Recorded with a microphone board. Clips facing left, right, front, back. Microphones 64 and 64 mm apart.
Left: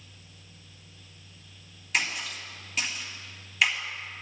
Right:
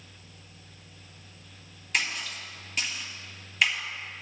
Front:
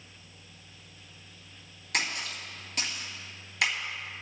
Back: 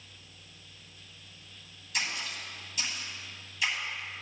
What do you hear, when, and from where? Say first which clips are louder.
1.9 s a splash: left 1 dB, front 3 dB; straight ahead, 3 m